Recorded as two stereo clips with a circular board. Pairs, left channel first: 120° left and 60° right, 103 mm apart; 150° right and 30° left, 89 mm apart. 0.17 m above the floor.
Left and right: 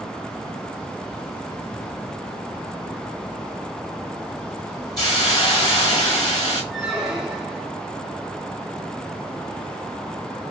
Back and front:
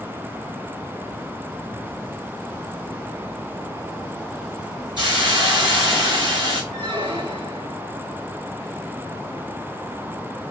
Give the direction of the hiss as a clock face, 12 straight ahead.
10 o'clock.